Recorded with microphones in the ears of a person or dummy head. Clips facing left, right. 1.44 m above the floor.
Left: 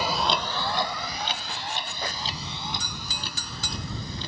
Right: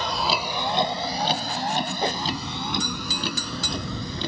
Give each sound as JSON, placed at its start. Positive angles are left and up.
{"t": 0.0, "sound": "a vehicle", "side_deg": 10}
{"t": 2.0, "sound": "a whoosh", "side_deg": -30}